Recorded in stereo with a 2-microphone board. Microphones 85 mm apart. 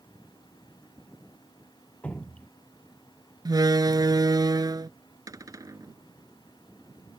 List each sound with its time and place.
2.0 s dripping: 15° left (ahead or behind)
3.5 s a door slam: 50° right (ahead or behind)
5.3 s a cupboard door: 40° right (ahead or behind)